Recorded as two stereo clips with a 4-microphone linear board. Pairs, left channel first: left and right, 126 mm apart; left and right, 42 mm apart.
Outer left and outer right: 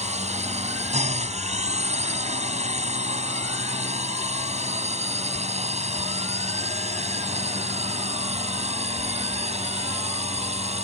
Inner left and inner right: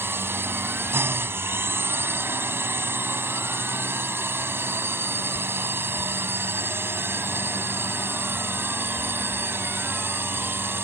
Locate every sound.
0.0 s a drone: 65° right (ahead or behind); by 10.8 s 60° right (ahead or behind)